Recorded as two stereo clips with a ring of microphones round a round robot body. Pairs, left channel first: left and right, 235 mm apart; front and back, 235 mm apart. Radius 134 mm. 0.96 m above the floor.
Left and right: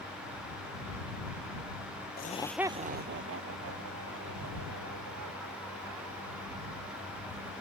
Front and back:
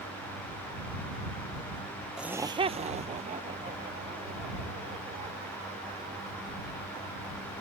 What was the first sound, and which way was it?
Laughter, 95° left.